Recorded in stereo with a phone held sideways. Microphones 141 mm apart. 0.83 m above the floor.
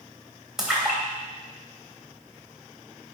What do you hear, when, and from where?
0.6 s a splash: 5° right (ahead or behind), 3 m